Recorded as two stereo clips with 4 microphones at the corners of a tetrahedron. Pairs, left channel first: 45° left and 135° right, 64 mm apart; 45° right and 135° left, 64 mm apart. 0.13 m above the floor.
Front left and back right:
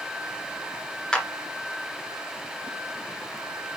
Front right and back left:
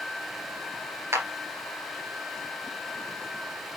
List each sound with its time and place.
1.1 s a clap: 115° left, 2 m